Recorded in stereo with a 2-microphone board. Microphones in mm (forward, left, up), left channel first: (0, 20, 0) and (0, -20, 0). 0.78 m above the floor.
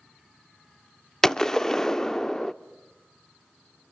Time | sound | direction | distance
1.2 | a gunshot | 15° left (ahead or behind) | 0.6 m